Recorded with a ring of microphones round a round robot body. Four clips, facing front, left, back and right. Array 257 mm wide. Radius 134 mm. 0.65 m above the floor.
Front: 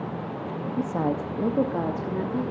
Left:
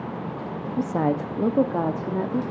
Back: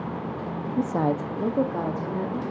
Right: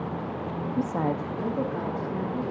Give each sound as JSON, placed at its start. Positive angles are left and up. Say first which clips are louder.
{"t": 0.8, "sound": "a woman speaking", "louder": "left 4 dB, back 2 dB", "azimuth_deg": 160, "distance_m": 0.6}